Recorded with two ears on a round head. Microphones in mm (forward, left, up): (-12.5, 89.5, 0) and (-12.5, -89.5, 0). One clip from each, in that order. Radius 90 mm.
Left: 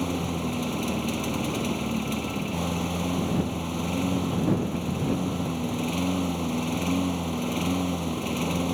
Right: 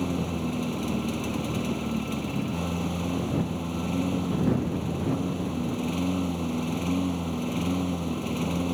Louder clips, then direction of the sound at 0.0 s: Left 1 dB; 25° left (ahead or behind).